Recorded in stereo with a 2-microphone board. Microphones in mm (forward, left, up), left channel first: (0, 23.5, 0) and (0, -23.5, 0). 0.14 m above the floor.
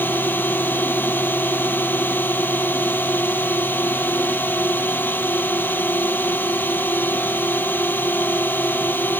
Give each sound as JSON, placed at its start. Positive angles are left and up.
{"t": 0.0, "sound": "a drone", "side_deg": 45}